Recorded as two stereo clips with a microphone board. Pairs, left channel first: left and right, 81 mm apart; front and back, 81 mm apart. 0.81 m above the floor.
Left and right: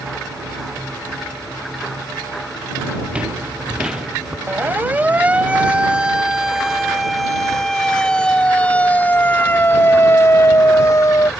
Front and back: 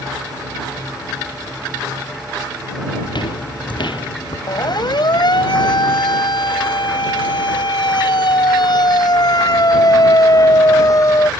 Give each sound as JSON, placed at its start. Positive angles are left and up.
{"t": 3.0, "sound": "footsteps", "azimuth_deg": -15}
{"t": 4.5, "sound": "a siren", "azimuth_deg": -25}